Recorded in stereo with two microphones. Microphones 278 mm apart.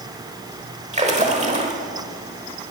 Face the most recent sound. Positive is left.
turn(degrees=-25)  # may be behind; listen again after turning